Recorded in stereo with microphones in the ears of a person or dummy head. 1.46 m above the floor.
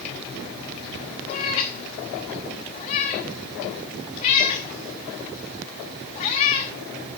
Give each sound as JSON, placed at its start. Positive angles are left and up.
{"t": 1.3, "sound": "a cat meowing", "side_deg": 25, "distance_m": 1.0}